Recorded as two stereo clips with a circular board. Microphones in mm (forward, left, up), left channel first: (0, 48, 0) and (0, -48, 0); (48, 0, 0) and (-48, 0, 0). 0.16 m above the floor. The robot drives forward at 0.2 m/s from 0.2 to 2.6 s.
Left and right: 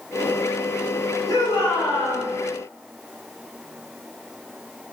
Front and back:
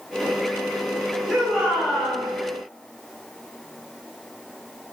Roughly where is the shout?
Left.